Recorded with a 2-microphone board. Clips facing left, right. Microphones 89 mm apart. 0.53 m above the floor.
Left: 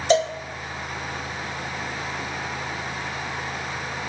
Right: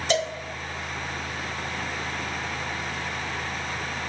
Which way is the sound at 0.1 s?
35° left (ahead or behind).